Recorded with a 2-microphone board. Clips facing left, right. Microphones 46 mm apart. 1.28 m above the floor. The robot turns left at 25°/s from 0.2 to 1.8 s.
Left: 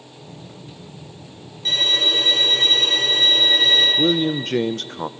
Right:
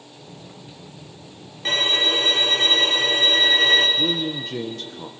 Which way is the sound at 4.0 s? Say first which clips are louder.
Left 5 dB; 60° left (ahead or behind).